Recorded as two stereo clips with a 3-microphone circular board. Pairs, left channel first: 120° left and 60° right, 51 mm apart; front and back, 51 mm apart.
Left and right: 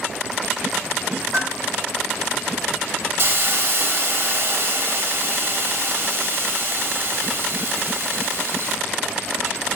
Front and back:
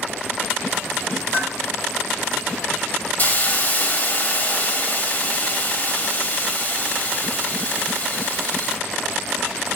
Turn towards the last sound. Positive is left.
turn(degrees=-45)